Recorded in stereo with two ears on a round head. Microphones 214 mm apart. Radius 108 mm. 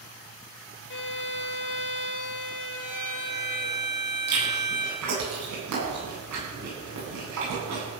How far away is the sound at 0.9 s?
About 1.7 m.